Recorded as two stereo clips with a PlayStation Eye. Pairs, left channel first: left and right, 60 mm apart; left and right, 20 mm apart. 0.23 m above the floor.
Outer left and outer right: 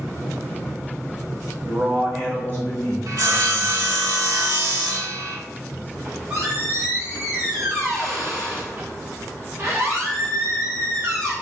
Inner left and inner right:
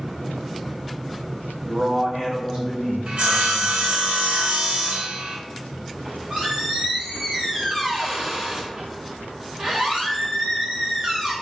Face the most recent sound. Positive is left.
turn(degrees=-45)  # may be behind; listen again after turning